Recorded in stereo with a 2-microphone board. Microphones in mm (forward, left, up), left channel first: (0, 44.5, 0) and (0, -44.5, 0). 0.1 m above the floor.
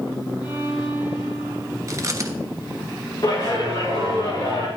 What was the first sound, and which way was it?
A violin, 65° left (ahead or behind).